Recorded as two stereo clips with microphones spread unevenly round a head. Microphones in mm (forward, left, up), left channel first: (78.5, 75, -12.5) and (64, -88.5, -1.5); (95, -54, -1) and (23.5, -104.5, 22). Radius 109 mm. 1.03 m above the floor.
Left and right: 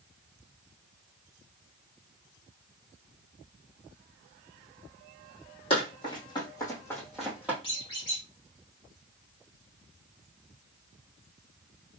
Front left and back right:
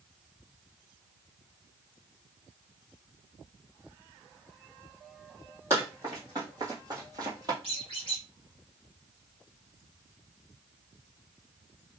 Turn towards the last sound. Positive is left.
turn(degrees=155)